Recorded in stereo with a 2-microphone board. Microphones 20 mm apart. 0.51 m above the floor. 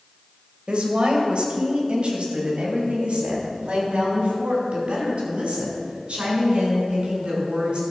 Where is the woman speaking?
55° right (ahead or behind), 2.5 m; by 7.8 s 60° right (ahead or behind), 6 m.